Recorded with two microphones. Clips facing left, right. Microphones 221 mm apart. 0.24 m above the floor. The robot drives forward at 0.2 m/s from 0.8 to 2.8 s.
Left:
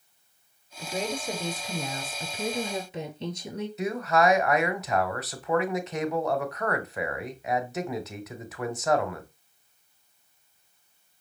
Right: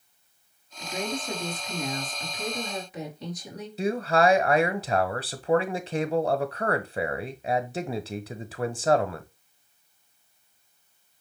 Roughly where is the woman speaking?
Left.